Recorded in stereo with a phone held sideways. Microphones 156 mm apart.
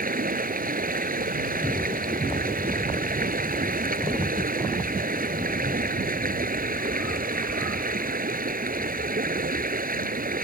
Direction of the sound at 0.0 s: 65° right (ahead or behind).